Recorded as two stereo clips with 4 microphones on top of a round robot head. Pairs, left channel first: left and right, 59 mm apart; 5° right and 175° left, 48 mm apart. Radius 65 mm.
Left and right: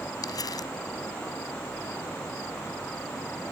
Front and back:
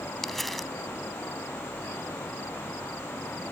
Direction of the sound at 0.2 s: 80° left.